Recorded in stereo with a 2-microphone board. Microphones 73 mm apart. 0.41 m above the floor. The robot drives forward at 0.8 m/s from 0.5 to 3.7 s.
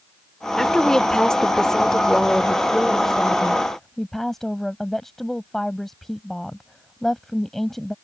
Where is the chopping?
I don't hear chopping.